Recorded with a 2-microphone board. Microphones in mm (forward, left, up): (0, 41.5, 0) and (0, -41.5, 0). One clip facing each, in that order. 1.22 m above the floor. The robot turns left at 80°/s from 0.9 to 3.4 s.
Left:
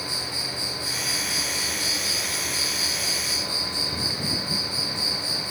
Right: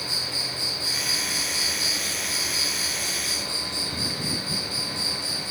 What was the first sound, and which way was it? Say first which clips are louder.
An insect: left 1 dB; 110° left.